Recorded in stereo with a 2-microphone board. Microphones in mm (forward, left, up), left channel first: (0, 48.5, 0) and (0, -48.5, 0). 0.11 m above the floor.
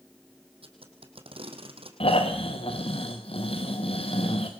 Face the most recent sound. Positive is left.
turn(degrees=75)  # may be behind; listen again after turning